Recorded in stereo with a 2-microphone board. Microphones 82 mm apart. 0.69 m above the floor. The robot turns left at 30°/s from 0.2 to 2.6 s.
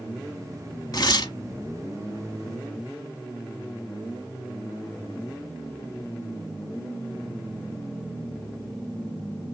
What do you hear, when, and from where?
0.9 s tearing paper: 50° left (ahead or behind), 1.0 m; by 1.3 s 60° left (ahead or behind), 1.0 m